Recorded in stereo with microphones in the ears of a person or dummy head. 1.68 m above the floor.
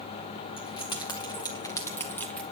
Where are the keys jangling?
25° left (ahead or behind), 2.5 m; by 2.4 s 5° left (ahead or behind), 1.4 m.